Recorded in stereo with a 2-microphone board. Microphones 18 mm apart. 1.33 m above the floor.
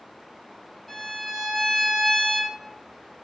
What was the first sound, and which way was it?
A violin, centre (ahead or behind).